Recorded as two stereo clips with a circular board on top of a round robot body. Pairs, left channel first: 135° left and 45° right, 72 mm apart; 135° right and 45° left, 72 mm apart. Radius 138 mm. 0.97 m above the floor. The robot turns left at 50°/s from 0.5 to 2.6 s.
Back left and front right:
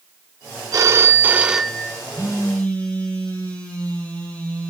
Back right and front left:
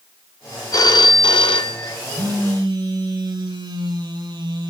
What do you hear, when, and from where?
0.7 s a phone ringing: 90° right, 1.2 m; by 2.0 s 150° right, 1.2 m
2.1 s a phone buzzing: 85° left, 6 m; by 4.7 s 60° left, 6 m